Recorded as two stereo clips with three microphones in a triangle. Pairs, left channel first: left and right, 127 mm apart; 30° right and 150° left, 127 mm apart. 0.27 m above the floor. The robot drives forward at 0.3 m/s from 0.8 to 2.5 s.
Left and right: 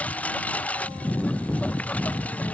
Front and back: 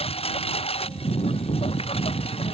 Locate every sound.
0.0 s a lawn mower: 10° left